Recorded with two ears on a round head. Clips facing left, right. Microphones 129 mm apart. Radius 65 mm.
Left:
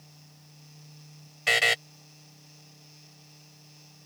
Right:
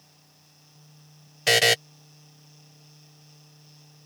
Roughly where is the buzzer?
Right.